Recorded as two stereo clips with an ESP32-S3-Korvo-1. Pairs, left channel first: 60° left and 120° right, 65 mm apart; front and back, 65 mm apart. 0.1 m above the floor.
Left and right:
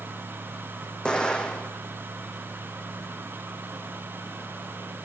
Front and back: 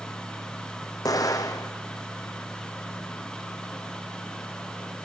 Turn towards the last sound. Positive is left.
turn(degrees=-15)